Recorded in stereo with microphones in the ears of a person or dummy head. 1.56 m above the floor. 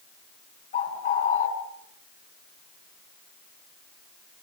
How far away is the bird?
About 4 m.